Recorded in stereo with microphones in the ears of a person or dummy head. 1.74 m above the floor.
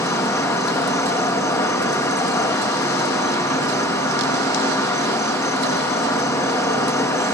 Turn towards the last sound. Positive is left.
turn(degrees=15)  # may be behind; listen again after turning